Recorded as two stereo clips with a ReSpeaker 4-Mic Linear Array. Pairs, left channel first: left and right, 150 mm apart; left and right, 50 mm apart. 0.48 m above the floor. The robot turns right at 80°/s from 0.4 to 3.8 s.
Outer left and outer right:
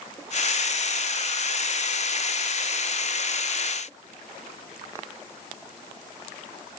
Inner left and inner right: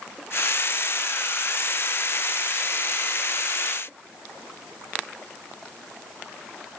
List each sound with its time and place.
Only background noise.